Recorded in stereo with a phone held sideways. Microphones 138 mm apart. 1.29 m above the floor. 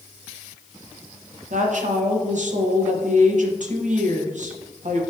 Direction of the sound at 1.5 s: 65° right (ahead or behind).